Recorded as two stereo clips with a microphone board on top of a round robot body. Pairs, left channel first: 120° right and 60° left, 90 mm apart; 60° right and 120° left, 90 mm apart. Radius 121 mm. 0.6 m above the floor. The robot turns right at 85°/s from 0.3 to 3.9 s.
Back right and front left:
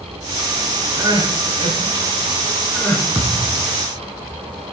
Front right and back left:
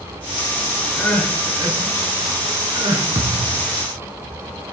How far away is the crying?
About 7.5 m.